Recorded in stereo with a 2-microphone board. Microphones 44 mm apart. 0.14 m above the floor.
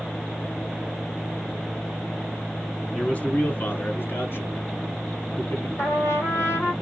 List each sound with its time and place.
3.0 s a man speaking: 25° left (ahead or behind), 1.3 m; by 5.7 s 65° left (ahead or behind), 3 m
5.8 s a trumpet: 75° left (ahead or behind), 3.5 m